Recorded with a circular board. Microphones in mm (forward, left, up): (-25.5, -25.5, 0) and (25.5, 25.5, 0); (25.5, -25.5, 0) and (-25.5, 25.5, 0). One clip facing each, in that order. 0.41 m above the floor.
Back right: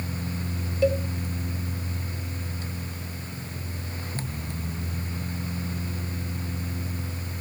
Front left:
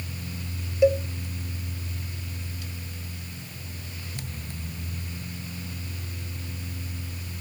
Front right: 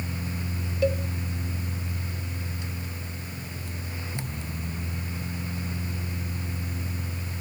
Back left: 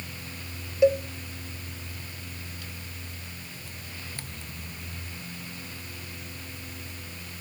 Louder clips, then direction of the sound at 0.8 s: Front left 3 dB, back left 5 dB; 90° left.